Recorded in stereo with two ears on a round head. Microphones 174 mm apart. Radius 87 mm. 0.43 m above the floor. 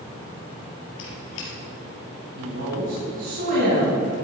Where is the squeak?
75° left (ahead or behind), 3.5 m.